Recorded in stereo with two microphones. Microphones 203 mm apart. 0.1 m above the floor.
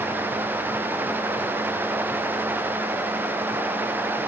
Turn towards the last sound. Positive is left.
No sound to turn to.